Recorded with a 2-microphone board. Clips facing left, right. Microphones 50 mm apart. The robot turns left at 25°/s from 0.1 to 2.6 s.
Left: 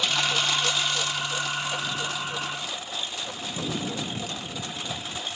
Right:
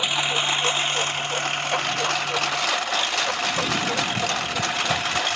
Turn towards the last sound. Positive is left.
turn(degrees=-80)